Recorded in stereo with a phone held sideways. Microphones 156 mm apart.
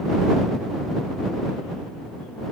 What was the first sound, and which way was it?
Only background noise.